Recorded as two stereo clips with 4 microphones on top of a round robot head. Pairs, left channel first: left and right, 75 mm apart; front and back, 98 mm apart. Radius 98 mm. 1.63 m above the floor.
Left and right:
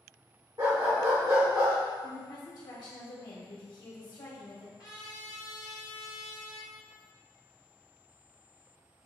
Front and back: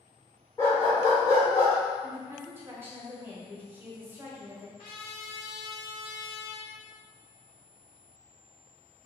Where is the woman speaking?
115° left, 1.2 m.